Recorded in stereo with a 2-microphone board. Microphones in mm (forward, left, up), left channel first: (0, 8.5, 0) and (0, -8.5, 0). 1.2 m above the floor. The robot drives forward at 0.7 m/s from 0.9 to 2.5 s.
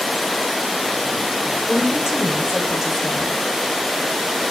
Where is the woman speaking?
55° right (ahead or behind), 0.6 m; by 3.4 s 30° right (ahead or behind), 0.9 m.